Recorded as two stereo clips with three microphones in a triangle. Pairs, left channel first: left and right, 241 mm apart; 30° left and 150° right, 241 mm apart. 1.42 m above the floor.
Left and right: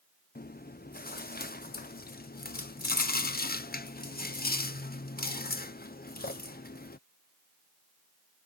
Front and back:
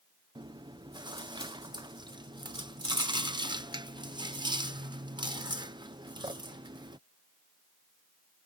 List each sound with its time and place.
0.3 s chewing: 140° left